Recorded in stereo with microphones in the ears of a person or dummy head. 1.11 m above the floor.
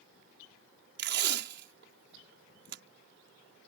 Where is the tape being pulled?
65° right (ahead or behind).